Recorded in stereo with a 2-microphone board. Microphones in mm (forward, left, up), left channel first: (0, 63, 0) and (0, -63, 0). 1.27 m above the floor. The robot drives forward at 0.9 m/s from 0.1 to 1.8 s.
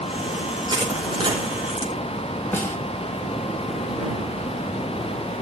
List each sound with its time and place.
0.7 s crushing: 35° right (ahead or behind), 5.5 m; by 1.9 s 30° right (ahead or behind), 6.5 m
2.5 s a snare drum: 15° left (ahead or behind), 1.9 m